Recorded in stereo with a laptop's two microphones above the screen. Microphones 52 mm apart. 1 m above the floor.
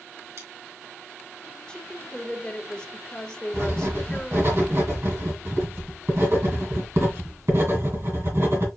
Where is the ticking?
I don't hear ticking.